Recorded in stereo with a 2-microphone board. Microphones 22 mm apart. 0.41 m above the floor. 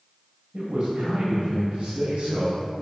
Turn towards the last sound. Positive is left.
turn(degrees=-70)  # may be behind; listen again after turning